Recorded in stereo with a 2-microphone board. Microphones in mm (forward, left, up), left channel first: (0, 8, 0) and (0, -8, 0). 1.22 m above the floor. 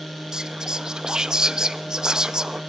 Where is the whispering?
50° right (ahead or behind), 1.1 m.